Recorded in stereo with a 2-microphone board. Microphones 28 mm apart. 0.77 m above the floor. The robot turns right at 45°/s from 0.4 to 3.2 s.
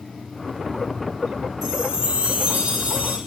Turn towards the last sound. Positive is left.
turn(degrees=-95)